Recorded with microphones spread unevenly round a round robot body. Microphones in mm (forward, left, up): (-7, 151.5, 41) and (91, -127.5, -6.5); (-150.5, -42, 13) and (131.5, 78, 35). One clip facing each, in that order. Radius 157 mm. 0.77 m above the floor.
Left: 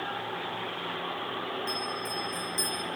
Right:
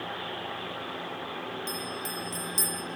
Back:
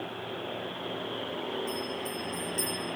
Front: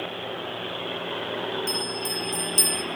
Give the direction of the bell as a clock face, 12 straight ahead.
1 o'clock.